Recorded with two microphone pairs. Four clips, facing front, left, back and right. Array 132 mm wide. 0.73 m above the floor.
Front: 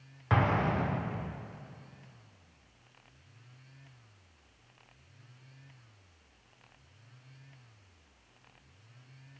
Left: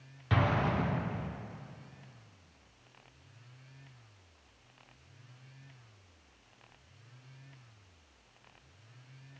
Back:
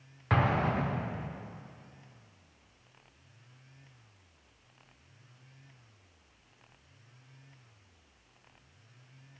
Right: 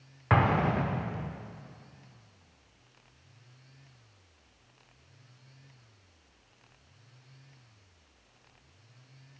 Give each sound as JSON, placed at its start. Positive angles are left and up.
{"t": 0.3, "sound": "an explosion", "azimuth_deg": -85, "distance_m": 0.6}